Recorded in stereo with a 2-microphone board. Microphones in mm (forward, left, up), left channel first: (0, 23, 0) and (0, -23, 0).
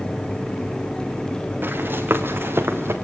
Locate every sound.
1.6 s running footsteps: 50° right (ahead or behind), 4 m; by 3.0 s 65° right (ahead or behind), 3 m